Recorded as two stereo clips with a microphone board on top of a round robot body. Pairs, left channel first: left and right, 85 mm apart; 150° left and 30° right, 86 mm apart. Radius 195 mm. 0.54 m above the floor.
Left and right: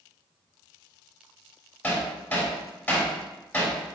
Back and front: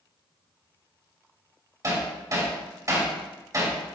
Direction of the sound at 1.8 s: 20° left.